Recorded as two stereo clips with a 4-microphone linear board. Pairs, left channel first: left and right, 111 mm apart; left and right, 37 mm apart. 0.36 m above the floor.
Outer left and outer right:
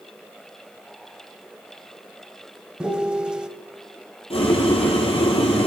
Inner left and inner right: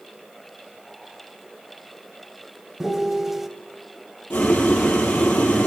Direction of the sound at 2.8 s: 10° right (ahead or behind).